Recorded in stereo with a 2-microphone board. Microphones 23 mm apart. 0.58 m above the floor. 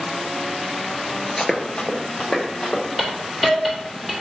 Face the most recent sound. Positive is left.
turn(degrees=-5)  # may be behind; listen again after turning